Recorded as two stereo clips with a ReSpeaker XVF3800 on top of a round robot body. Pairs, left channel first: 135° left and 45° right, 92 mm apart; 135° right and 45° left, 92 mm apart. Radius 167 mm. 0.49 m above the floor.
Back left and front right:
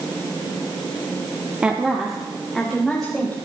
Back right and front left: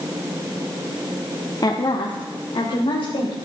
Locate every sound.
1.6 s a woman speaking: 120° right, 1.5 m; by 3.4 s 145° right, 3.5 m